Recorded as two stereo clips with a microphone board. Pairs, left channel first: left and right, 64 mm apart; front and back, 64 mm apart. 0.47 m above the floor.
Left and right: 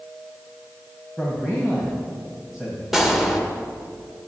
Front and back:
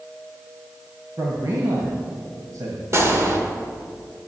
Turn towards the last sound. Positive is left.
turn(degrees=-170)